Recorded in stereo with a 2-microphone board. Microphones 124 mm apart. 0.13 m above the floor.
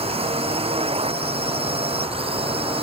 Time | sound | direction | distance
0.0 | a drone | 55° right (ahead or behind) | ?